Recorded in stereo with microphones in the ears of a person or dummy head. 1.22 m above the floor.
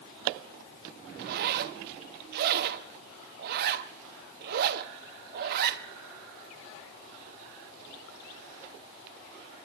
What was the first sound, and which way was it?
A zipper, 50° right (ahead or behind).